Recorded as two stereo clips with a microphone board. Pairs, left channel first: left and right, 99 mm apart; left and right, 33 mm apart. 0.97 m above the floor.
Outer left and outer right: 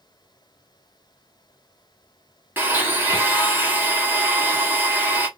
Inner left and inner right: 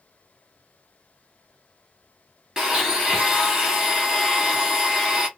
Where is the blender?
20° right (ahead or behind), 1.3 m.